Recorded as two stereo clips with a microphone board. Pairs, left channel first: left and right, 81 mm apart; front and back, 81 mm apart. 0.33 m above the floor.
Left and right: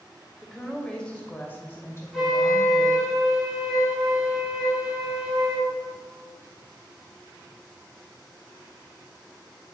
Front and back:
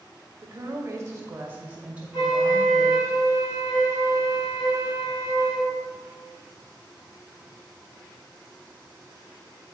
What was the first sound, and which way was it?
A woman speaking, straight behind.